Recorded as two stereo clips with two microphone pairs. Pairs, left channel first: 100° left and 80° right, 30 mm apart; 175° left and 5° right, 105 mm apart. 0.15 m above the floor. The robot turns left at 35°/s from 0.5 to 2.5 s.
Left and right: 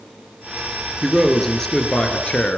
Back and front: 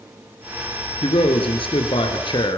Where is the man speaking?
170° right, 2.5 m; by 2.6 s 140° left, 2.5 m.